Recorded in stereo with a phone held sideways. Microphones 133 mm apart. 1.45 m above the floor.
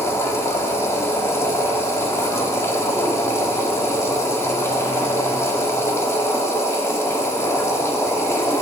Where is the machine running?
20° left (ahead or behind), 1.6 m.